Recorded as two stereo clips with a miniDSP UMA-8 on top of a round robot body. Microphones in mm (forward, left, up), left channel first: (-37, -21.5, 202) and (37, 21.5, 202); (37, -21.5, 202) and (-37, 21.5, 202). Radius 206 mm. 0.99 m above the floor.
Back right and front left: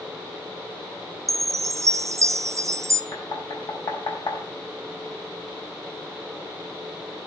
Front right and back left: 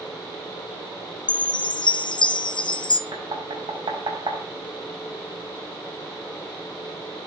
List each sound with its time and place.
1.3 s a chime: 20° right, 0.9 m
3.1 s knocking: 175° left, 5 m